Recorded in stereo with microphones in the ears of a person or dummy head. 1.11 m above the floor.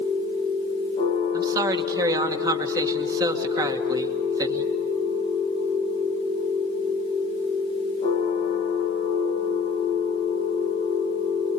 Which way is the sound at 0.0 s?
40° left (ahead or behind).